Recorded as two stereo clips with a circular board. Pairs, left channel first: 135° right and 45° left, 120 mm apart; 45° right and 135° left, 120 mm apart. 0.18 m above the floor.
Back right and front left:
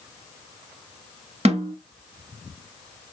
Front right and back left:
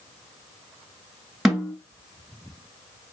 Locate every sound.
1.4 s a snare drum: 50° left, 0.9 m